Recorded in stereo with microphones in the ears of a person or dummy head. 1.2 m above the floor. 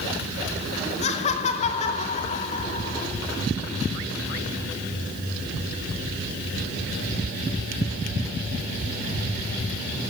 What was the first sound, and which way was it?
Laughter, 40° left (ahead or behind).